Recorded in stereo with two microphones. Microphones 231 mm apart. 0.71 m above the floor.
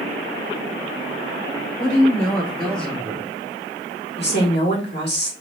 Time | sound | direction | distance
1.8 | a woman speaking | 5° left (ahead or behind) | 2 m
4.2 | a woman speaking | 45° left (ahead or behind) | 1.6 m